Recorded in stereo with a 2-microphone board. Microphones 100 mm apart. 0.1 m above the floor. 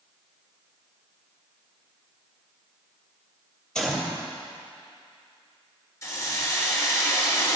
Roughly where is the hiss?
Left.